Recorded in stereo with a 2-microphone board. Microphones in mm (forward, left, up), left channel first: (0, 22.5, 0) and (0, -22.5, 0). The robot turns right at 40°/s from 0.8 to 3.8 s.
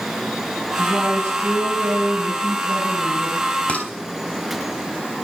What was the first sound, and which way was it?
A woman speaking, 120° right.